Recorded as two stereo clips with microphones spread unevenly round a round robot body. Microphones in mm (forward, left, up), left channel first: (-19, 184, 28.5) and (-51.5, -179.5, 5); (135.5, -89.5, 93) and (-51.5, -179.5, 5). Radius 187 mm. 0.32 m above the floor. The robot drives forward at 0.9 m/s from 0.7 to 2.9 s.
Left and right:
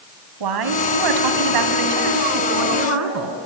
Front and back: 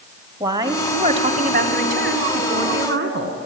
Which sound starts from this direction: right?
A woman speaking, at 0.4 s.